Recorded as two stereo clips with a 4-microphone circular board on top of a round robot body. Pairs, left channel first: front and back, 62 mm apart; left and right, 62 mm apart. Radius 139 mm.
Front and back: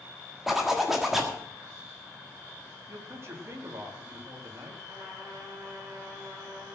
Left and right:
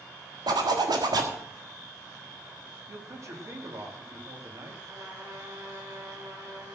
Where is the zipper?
95° right, 1.6 m.